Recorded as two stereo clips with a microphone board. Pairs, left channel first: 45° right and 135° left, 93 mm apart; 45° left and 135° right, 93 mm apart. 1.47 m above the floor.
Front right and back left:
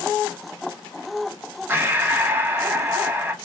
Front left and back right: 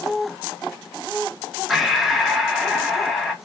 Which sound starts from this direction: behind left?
Breathing, at 1.7 s.